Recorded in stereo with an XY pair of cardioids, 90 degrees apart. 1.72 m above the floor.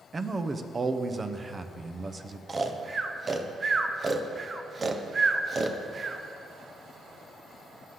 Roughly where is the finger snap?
No finger snap in this recording.